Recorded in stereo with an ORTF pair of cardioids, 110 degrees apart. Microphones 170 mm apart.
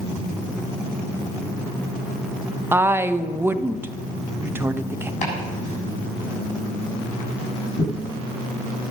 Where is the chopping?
45° left, 6.5 m.